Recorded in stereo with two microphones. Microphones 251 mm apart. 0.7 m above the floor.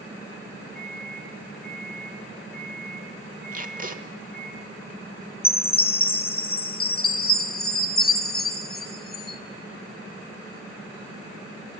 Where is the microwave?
35° right (ahead or behind), 7.5 m.